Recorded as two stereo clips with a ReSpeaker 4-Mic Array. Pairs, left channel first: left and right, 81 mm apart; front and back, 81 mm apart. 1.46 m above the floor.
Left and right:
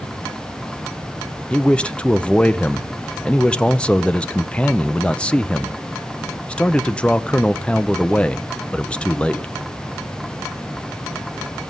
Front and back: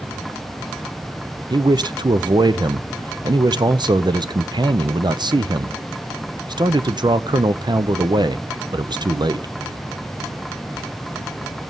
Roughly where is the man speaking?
Behind.